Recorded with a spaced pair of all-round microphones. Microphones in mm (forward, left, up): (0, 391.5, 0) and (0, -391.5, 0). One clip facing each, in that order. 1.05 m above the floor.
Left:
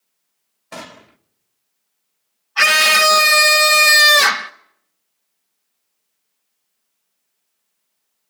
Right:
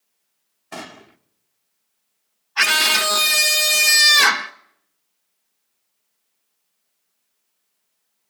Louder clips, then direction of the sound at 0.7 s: Even; 10° left (ahead or behind).